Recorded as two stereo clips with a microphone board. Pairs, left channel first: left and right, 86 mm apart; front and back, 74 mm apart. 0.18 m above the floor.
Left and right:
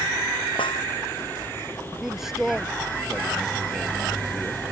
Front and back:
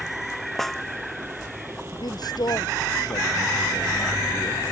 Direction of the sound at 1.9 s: 5° right.